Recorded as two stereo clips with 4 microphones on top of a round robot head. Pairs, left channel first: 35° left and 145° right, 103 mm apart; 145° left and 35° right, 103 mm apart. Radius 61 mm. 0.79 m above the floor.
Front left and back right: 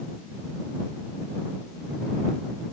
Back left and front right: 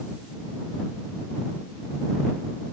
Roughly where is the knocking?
No knocking in this recording.